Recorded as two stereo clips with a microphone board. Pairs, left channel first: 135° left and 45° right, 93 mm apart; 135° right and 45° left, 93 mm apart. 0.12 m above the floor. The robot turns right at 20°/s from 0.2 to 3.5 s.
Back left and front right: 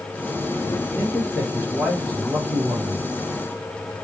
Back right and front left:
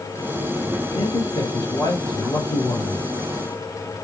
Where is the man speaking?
160° right, 2.5 m; by 3.1 s 115° right, 2.5 m.